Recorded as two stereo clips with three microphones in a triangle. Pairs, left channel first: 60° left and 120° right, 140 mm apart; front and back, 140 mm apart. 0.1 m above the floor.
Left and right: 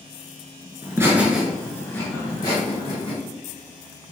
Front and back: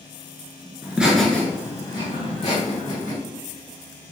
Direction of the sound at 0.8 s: 125° right.